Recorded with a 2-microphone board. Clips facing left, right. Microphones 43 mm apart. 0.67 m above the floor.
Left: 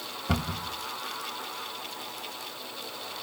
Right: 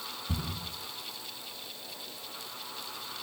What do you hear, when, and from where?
0.3 s a cupboard door: 80° left, 2.5 m